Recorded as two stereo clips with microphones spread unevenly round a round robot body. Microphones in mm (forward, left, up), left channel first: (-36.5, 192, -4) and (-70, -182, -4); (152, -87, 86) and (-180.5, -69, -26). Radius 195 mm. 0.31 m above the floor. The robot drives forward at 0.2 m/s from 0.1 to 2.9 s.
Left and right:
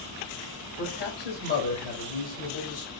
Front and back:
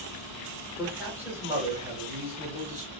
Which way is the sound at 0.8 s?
120° left.